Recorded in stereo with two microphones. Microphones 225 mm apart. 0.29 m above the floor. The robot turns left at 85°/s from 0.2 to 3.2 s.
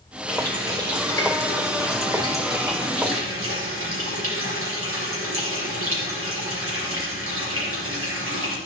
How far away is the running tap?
About 4 m.